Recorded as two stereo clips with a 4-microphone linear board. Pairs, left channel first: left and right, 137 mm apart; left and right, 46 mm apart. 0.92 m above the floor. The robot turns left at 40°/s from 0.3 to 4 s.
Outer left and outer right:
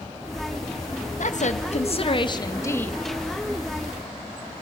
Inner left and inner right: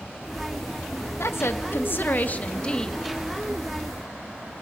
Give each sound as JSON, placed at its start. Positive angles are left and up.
{"t": 1.2, "sound": "a woman speaking", "azimuth_deg": 80, "distance_m": 0.6}